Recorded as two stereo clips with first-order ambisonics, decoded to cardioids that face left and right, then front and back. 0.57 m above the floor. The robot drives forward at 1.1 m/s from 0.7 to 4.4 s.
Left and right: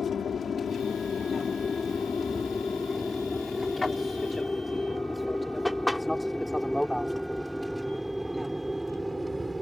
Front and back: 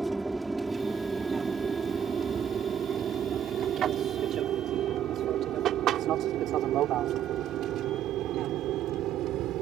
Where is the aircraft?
105° left; by 9.6 s 175° right.